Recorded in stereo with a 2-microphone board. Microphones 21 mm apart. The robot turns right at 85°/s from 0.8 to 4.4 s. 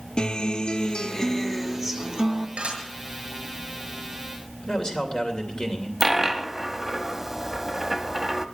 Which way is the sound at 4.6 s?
40° left (ahead or behind).